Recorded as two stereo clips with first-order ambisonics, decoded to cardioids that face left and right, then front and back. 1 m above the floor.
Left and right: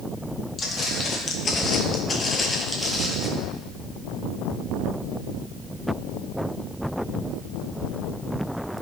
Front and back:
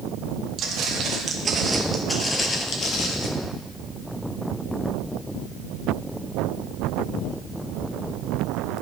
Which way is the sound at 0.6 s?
145° left.